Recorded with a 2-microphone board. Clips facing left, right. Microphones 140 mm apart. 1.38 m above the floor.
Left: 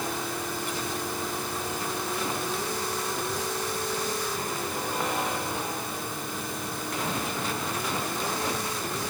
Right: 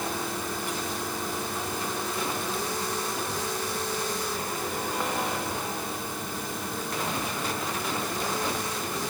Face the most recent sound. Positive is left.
No sound to turn to.